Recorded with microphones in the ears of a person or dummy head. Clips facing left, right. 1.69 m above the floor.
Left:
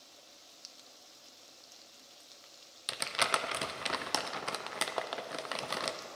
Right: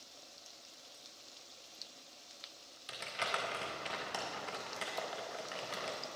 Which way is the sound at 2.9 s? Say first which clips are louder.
Left 5 dB; 60° left (ahead or behind).